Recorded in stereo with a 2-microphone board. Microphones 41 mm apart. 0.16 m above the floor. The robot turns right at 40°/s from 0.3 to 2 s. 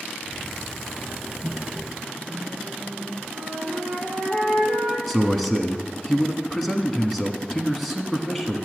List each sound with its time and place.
1.4 s a microwave: 25° right (ahead or behind), 2.5 m; by 3.2 s 40° right (ahead or behind), 2.5 m
3.3 s a flute: centre (ahead or behind), 6 m
5.1 s a man speaking: centre (ahead or behind), 1.1 m